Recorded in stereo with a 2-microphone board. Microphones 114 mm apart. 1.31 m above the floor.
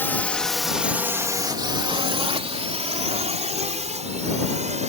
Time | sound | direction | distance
0.0 | a drone | 20° left (ahead or behind) | ?